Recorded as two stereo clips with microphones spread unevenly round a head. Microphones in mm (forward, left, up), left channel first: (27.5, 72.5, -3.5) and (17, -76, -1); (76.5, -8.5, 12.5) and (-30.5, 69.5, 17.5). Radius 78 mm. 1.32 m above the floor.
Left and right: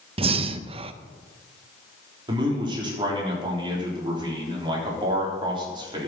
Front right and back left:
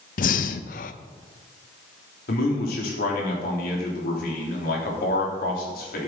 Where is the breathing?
50° right, 0.6 m.